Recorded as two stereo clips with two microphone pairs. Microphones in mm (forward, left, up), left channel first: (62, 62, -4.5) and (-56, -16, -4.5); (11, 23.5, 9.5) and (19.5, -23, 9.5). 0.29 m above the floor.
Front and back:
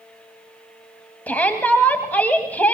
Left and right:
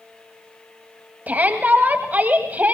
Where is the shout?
40° right, 1.9 m.